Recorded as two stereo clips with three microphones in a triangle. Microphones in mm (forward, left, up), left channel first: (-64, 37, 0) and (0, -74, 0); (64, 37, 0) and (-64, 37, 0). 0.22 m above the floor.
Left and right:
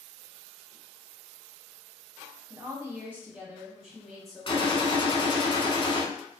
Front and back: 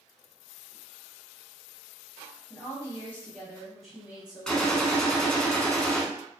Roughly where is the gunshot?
Left.